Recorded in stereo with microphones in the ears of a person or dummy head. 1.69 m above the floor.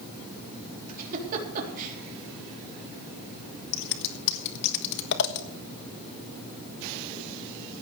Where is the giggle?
50° right (ahead or behind), 3.5 m.